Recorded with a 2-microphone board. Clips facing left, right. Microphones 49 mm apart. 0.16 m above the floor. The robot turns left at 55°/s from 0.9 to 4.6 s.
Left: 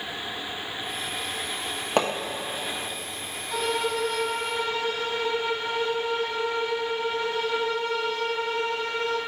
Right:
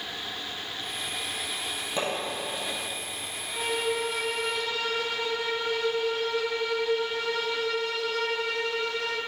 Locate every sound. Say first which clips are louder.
2.0 s hammering: left 6 dB; 65° left (ahead or behind), 1.1 m; by 2.1 s 75° left (ahead or behind), 1.1 m
3.5 s a violin: left 2 dB; 95° left, 1.5 m; by 9.2 s 35° left, 1.5 m